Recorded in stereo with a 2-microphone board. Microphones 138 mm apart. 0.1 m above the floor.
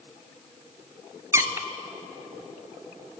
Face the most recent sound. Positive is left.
turn(degrees=-20)  # may be behind; listen again after turning